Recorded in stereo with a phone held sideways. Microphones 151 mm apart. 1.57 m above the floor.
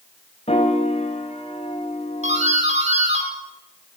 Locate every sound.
0.5 s a piano: 40° left (ahead or behind), 3 m
2.2 s a doorbell: 50° right (ahead or behind), 6 m